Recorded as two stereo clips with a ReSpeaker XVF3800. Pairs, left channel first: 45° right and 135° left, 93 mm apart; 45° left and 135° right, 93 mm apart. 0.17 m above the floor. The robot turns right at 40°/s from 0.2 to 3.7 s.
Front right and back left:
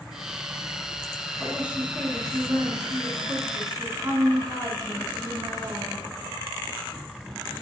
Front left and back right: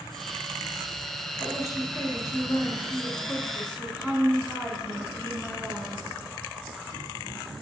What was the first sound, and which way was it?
A woman speaking, 55° left.